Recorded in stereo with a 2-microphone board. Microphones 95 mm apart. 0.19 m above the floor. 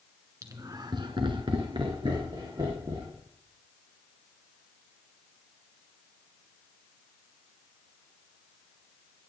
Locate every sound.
0.4 s laughter: 35° right (ahead or behind), 1.9 m; by 3.2 s 50° right (ahead or behind), 4 m